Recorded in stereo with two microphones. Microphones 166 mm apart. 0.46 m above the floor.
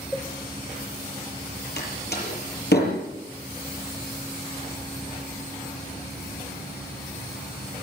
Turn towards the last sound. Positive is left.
turn(degrees=85)